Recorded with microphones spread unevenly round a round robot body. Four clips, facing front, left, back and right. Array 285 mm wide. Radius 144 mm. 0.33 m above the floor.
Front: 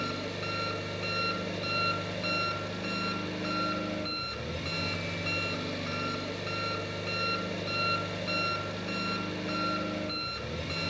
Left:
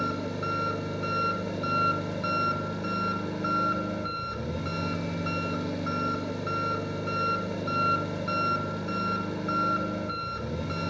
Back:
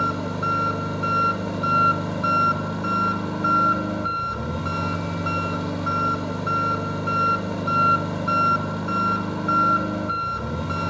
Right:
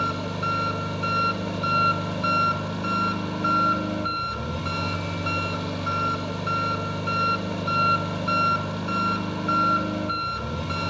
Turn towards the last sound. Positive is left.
turn(degrees=-175)